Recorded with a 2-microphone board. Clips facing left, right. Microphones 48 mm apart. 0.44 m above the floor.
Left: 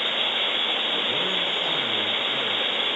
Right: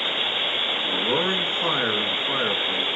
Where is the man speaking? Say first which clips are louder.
Right 3 dB; 55° right (ahead or behind), 5.5 m.